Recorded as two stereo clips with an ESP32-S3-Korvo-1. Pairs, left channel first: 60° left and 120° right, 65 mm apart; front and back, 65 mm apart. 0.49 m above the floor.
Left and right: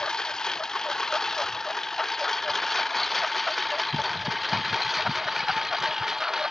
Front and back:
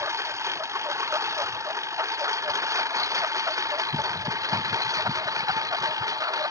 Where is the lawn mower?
140° left; by 6.5 s 155° left.